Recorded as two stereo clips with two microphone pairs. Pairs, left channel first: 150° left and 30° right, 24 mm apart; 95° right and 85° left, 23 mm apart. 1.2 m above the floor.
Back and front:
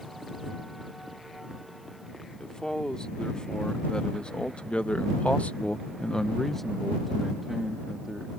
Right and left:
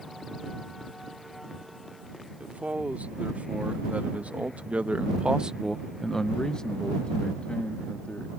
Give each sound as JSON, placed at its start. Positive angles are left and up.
{"t": 2.4, "sound": "a man speaking", "azimuth_deg": 85}